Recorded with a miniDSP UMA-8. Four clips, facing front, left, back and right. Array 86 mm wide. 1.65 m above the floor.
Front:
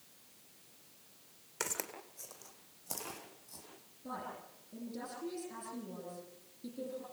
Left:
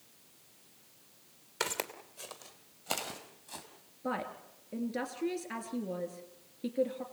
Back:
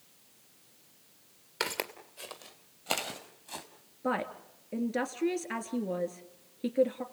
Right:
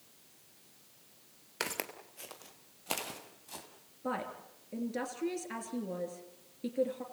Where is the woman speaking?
Straight behind, 3 m.